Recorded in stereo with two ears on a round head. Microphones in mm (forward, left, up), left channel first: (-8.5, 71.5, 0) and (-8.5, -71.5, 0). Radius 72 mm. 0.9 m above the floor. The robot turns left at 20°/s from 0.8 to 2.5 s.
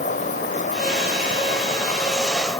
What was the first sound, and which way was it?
An insect, 50° left.